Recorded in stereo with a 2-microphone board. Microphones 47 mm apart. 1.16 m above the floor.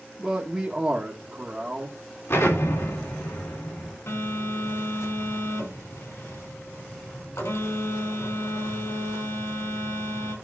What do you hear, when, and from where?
0.2 s a man speaking: 20° right (ahead or behind), 1.4 m
2.3 s an explosion: 65° left (ahead or behind), 3.5 m
4.1 s a phone buzzing: 80° left, 4 m